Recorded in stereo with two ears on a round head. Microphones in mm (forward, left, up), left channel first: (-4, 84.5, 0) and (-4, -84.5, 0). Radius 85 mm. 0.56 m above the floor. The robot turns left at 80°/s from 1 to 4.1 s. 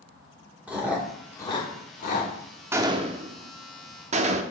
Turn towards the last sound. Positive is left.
turn(degrees=-35)  # may be behind; listen again after turning